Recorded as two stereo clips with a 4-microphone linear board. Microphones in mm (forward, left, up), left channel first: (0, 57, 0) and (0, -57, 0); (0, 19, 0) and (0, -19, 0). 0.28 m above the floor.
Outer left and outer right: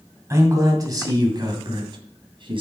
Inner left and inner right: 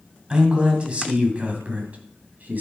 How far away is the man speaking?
About 2 m.